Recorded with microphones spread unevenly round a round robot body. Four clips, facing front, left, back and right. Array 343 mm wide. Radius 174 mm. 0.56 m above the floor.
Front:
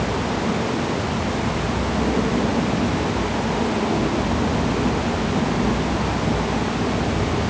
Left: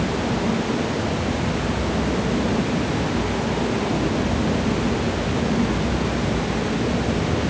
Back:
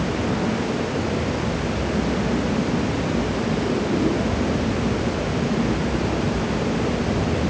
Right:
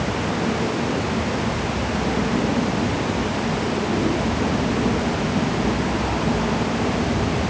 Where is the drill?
No drill in this recording.